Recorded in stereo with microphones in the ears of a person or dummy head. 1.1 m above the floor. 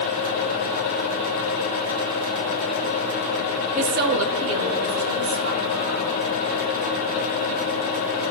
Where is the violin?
No violin in this recording.